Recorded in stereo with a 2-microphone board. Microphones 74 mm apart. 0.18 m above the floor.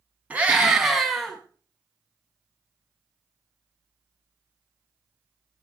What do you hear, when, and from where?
0.3 s a scream: 20° right (ahead or behind), 1.7 m; by 1.4 s 5° left (ahead or behind), 1.6 m